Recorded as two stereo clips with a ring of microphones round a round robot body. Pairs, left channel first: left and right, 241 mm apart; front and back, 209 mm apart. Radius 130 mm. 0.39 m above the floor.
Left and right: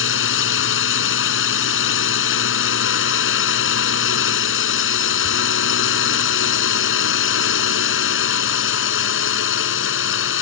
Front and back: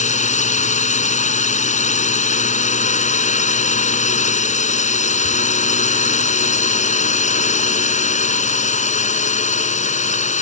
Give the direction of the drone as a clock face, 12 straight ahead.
10 o'clock.